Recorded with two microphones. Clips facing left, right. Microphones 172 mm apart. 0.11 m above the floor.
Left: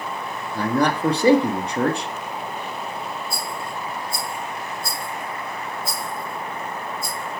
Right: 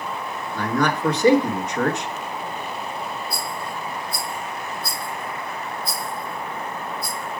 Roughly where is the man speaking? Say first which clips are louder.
Left 2 dB; left.